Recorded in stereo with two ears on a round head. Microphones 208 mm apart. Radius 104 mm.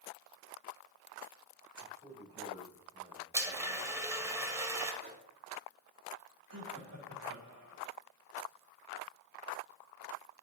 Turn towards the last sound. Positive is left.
turn(degrees=-75)  # may be behind; listen again after turning